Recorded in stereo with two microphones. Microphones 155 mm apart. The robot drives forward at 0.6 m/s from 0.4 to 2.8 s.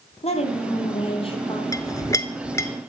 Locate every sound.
0.2 s a woman speaking: 40° left (ahead or behind), 2.5 m; by 1.6 s 35° left (ahead or behind), 3 m
1.7 s a clink: 20° left (ahead or behind), 0.7 m; by 2.7 s 15° left (ahead or behind), 0.8 m